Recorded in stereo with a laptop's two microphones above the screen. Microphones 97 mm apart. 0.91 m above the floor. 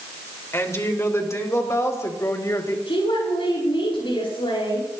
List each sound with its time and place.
0.5 s a woman speaking: 30° left (ahead or behind), 2.5 m; by 2.8 s 35° left (ahead or behind), 3.5 m
2.9 s a woman speaking: 65° left (ahead or behind), 9 m